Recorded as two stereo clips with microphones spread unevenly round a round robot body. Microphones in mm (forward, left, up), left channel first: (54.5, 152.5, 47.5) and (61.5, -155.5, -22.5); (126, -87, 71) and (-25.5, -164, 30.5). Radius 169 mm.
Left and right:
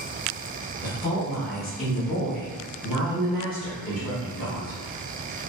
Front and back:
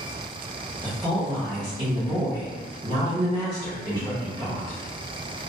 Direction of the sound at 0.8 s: 175° left.